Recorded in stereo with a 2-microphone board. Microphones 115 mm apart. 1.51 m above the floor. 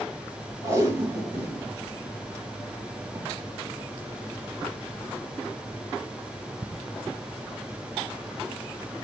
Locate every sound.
0.6 s tape being pulled: 30° right (ahead or behind), 2.5 m